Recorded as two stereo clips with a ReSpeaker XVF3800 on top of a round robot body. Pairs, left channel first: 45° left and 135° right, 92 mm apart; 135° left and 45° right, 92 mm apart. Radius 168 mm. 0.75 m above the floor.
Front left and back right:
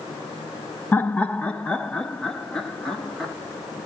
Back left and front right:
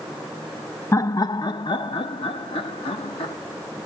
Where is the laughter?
100° left, 0.8 m; by 3.3 s 130° left, 2.5 m.